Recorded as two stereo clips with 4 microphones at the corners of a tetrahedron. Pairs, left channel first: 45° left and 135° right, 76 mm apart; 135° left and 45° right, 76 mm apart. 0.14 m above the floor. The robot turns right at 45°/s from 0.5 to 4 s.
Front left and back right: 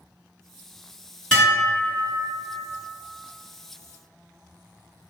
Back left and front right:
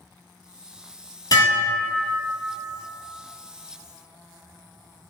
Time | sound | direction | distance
1.3 | dishes clattering | 125° left | 1.6 m